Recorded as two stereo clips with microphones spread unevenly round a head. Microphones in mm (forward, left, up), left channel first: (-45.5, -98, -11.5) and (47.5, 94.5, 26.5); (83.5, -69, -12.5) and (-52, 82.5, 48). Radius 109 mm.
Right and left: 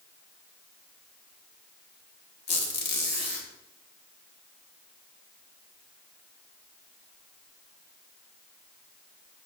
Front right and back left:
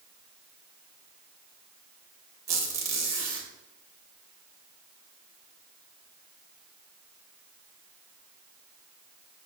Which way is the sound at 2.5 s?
160° right.